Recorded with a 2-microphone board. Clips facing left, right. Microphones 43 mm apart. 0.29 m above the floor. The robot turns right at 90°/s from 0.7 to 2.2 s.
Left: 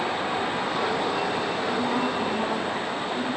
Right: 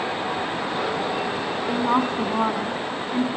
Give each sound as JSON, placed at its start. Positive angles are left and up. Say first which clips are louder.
{"t": 1.7, "sound": "a woman speaking", "louder": "right 6 dB", "azimuth_deg": -140, "distance_m": 3.0}